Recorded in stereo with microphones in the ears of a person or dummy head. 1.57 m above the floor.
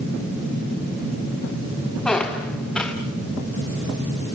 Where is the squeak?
Centre (ahead or behind), 1.2 m.